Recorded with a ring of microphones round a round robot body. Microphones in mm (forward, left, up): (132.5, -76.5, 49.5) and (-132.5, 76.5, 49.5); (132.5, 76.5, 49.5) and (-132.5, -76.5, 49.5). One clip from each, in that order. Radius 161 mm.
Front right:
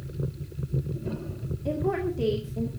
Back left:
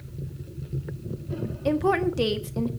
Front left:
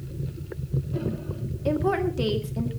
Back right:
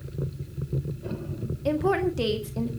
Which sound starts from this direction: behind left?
A woman speaking, at 1.6 s.